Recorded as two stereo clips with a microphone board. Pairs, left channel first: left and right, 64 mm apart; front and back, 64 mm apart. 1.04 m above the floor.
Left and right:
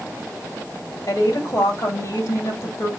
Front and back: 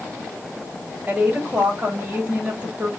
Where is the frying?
I don't hear frying.